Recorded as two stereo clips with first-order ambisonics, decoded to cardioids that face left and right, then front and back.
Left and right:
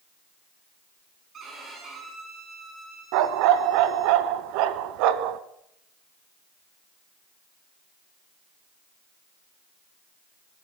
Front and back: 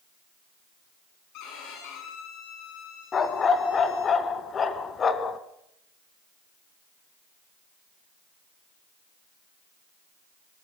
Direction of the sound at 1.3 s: 30° right.